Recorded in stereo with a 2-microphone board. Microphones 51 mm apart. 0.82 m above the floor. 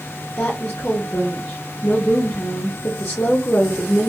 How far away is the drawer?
I don't hear a drawer.